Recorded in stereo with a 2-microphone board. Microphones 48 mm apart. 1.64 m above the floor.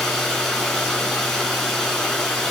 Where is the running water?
10° left (ahead or behind), 2.5 m.